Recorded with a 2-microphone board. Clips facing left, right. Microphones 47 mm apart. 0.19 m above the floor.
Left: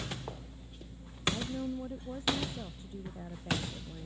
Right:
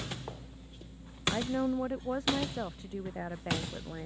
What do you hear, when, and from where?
1.3 s a woman speaking: 80° right; by 4.1 s 75° right (ahead or behind)